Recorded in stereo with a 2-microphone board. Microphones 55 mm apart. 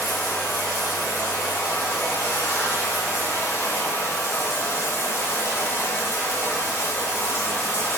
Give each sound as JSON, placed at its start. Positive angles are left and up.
{"t": 0.0, "sound": "running water", "side_deg": 55, "distance_m": 1.7}